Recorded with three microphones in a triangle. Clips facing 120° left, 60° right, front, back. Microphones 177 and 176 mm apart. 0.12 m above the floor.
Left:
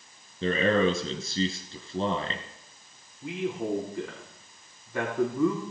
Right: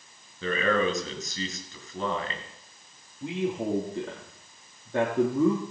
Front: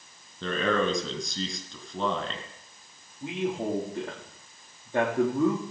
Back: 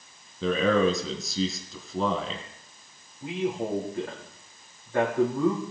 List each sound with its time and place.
0.4 s a man speaking: 95° left, 2 m
3.2 s a man speaking: 65° right, 4 m